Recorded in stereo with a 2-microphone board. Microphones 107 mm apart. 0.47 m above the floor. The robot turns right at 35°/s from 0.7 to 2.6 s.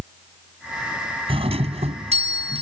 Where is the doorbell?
115° right; by 2.6 s 70° right.